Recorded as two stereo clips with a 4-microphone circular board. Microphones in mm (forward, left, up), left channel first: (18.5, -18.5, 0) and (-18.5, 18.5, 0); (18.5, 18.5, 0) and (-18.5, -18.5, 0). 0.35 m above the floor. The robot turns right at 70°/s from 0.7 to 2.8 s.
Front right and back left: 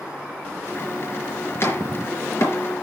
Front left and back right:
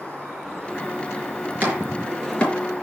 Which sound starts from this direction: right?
Chopping, at 1.6 s.